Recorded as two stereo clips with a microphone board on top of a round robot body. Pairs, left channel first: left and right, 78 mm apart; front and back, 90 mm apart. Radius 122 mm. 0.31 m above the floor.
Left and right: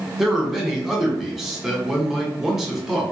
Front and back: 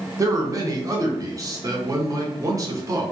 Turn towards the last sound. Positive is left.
turn(degrees=-175)